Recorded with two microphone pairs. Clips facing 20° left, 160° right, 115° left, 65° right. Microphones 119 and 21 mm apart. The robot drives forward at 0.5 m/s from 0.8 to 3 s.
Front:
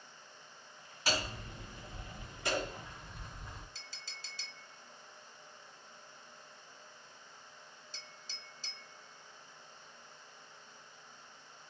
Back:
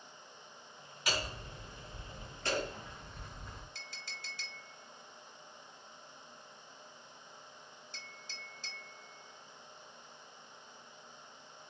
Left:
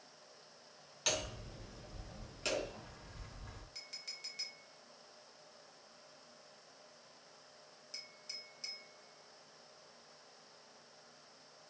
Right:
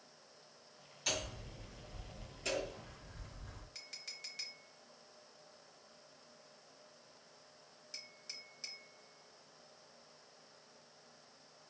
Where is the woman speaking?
I don't hear a woman speaking.